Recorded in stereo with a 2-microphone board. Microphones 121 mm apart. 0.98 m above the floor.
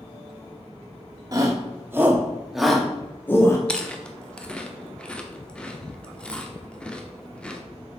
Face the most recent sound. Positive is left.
turn(degrees=10)  # may be behind; listen again after turning